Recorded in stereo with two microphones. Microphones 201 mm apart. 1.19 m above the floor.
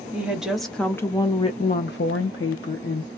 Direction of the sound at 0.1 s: 10° right (ahead or behind).